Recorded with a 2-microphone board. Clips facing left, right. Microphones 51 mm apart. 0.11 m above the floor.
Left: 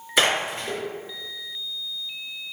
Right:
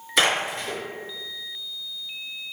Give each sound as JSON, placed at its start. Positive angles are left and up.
{"t": 0.2, "sound": "a splash", "side_deg": 5, "distance_m": 1.9}